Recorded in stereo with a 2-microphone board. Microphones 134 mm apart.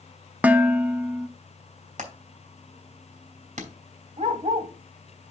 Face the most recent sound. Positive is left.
turn(degrees=-55)  # may be behind; listen again after turning